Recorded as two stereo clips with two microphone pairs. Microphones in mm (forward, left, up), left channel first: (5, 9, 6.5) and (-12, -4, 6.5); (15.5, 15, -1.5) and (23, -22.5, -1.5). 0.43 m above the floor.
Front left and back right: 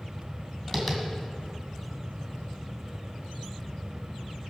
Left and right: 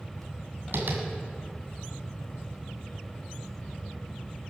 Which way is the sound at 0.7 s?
50° right.